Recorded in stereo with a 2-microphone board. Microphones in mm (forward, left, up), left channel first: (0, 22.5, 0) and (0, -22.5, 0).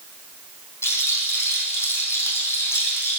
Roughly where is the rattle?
Left.